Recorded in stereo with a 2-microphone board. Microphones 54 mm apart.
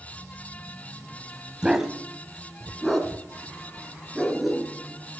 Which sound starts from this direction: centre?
A dog barking, at 1.6 s.